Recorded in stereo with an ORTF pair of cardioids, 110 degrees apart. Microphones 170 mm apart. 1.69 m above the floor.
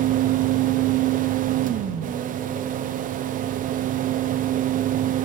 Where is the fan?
60° right, 0.9 m.